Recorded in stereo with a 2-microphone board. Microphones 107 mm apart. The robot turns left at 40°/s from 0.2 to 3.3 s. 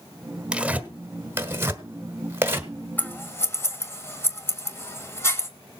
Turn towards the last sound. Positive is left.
turn(degrees=25)  # may be behind; listen again after turning